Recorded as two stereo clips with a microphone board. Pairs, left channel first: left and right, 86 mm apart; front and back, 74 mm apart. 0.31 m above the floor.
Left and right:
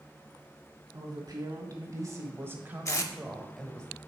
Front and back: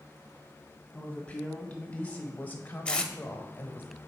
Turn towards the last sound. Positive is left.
turn(degrees=65)